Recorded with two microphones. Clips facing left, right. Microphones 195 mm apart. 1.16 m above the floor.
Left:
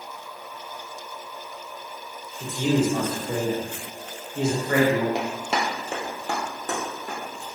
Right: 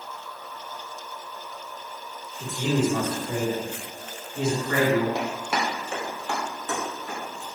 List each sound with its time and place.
2.4 s a man speaking: 15° left (ahead or behind), 1.3 m; by 5.0 s 70° left (ahead or behind), 1.7 m
5.2 s running footsteps: 20° left (ahead or behind), 1.4 m; by 7.5 s 45° left (ahead or behind), 2.5 m